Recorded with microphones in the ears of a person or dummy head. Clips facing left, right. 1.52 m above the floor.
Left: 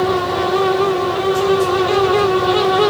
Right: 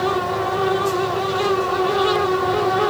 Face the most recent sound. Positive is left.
No sound to turn to.